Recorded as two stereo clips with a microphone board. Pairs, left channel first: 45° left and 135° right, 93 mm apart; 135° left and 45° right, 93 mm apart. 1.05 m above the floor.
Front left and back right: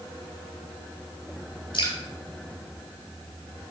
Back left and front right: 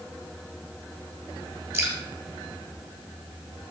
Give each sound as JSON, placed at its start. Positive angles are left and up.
{"t": 1.7, "sound": "dripping", "azimuth_deg": 15, "distance_m": 3.0}